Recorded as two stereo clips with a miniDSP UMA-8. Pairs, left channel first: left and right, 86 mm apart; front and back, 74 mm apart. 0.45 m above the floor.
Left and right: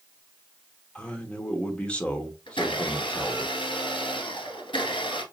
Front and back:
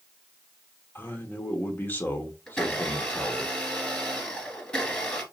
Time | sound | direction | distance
0.9 | a man speaking | 30° left | 1.1 m
2.5 | a blender | 80° left | 2 m